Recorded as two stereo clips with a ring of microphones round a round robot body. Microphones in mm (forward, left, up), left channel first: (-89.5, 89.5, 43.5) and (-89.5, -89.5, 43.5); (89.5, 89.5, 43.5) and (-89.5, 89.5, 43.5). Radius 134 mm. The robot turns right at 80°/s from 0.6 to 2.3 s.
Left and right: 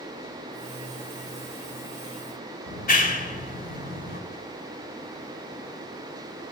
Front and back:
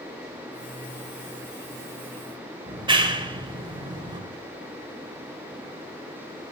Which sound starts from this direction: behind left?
A clap, at 2.7 s.